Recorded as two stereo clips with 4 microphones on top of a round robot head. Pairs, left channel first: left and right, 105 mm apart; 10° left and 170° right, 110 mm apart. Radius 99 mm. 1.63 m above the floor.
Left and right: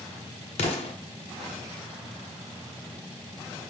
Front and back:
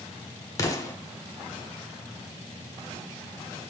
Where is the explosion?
70° left, 0.8 m.